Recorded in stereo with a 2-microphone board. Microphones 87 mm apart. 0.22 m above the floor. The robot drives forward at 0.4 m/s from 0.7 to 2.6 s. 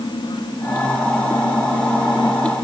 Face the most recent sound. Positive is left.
No sound to turn to.